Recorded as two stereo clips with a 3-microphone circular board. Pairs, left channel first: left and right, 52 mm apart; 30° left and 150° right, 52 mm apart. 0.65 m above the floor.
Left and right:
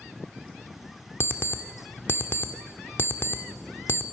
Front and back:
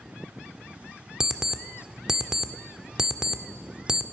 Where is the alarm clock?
130° left, 0.7 m.